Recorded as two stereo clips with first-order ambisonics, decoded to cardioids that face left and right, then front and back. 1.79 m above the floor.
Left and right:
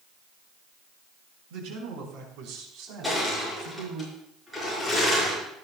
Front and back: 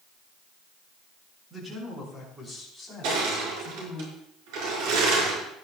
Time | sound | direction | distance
1.5 | a man speaking | 100° right | 6 m
3.0 | crushing | 175° right | 6.5 m